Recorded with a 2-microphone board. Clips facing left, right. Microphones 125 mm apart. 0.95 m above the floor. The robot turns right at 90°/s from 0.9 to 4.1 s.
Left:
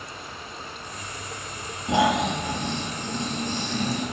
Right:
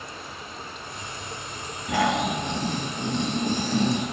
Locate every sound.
1.9 s snoring: 150° left, 3.5 m; by 4.0 s 15° right, 3.5 m